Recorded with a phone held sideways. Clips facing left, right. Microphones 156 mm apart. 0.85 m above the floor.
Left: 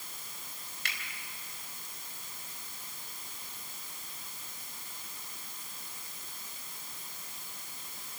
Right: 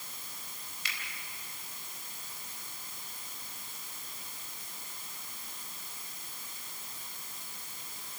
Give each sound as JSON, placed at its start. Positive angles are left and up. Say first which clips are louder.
{"t": 0.8, "sound": "a finger snap", "louder": "left 2 dB", "side_deg": 60, "distance_m": 4.0}